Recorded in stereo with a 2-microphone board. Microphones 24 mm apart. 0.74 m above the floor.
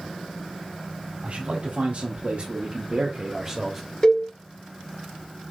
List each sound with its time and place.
1.2 s a man speaking: 65° right (ahead or behind), 1.8 m; by 3.9 s 5° left (ahead or behind), 0.9 m
4.0 s a cowbell: 25° left (ahead or behind), 2 m